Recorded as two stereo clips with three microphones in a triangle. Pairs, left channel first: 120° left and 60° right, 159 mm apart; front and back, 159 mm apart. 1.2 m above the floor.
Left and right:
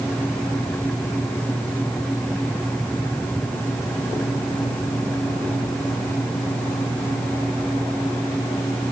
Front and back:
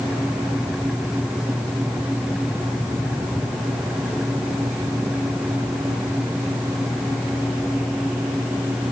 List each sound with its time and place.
Only background noise.